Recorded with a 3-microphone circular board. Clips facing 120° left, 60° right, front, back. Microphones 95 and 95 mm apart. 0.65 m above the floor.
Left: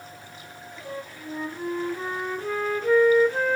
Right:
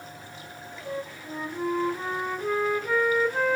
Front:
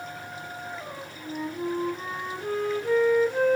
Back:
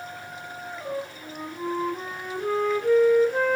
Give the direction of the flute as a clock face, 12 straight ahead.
5 o'clock.